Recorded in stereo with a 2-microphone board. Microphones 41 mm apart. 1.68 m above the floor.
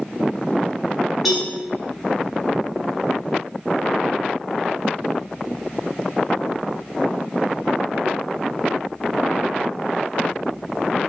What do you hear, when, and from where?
1.2 s a cowbell: centre (ahead or behind), 0.8 m